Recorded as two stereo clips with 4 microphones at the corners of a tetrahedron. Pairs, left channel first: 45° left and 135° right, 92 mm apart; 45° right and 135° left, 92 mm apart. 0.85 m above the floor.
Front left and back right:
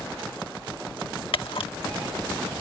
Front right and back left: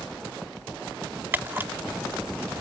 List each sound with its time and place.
1.3 s a camera shutter: 65° left